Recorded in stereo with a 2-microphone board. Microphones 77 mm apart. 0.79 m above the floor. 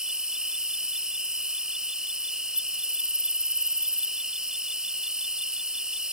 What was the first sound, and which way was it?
An insect, 10° right (ahead or behind).